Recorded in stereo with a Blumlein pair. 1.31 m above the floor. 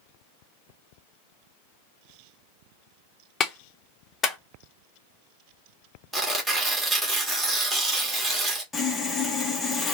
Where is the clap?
20° left, 0.9 m.